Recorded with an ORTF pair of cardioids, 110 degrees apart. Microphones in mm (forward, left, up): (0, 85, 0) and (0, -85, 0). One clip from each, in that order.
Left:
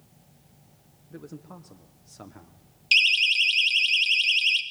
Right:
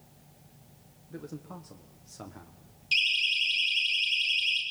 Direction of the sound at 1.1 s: 5° left.